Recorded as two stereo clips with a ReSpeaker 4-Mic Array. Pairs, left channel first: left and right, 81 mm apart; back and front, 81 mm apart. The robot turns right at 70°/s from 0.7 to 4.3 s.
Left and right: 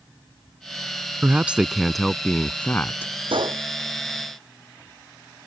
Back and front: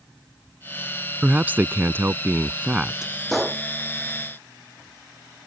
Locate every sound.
1.2 s a man speaking: 50° right; by 3.1 s 80° left
3.3 s a gunshot: 95° right; by 3.6 s 70° right